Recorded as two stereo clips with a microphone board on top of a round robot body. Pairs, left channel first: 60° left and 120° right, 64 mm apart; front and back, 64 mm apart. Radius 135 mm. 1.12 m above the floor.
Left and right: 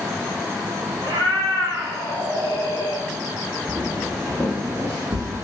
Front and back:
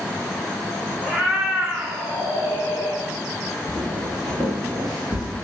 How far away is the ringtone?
No ringtone in this recording.